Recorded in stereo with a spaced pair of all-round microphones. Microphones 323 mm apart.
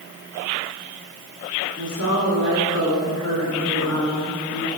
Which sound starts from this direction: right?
A woman speaking, at 1.8 s.